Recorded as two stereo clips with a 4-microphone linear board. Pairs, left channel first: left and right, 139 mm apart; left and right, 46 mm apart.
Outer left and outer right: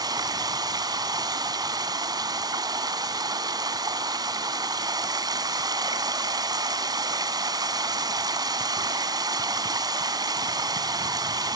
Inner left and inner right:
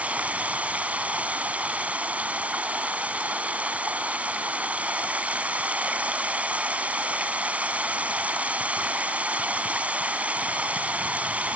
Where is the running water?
30° right (ahead or behind), 1.8 m.